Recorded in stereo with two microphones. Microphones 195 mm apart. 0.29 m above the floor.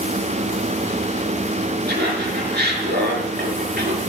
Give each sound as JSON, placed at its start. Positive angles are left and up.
{"t": 1.9, "sound": "laughter", "side_deg": -55, "distance_m": 5.5}